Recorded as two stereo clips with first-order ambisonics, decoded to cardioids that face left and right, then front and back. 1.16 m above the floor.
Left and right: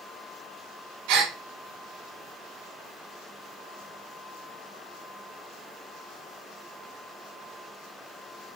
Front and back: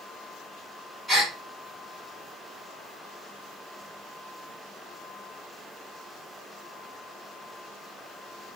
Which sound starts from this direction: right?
A gasp, at 1.1 s.